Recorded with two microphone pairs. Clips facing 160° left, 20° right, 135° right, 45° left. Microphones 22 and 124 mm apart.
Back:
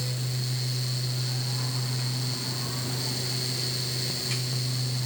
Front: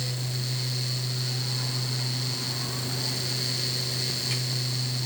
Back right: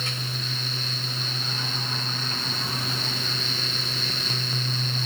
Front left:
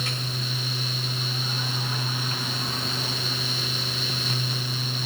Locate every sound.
Only background noise.